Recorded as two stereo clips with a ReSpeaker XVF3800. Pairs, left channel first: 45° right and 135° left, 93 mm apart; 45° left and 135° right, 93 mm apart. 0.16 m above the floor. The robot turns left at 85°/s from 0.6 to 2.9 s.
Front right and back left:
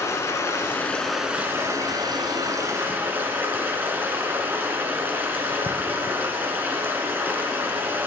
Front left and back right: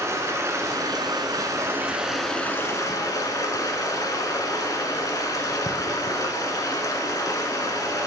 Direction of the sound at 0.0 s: 90° right.